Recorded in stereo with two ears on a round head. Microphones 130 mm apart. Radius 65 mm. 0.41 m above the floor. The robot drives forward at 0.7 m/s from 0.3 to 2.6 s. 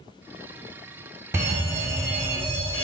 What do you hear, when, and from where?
1.3 s a fire alarm: 20° right (ahead or behind), 4.5 m; by 2.9 s 15° right (ahead or behind), 5.5 m